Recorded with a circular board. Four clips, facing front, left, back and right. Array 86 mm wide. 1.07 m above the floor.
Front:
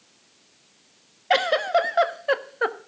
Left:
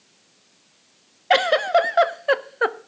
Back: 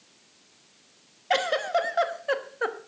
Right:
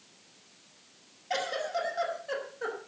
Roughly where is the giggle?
Left.